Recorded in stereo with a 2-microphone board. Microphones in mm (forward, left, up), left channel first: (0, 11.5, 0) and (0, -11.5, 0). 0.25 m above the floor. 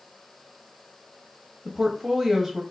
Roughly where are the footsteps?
No footsteps in this recording.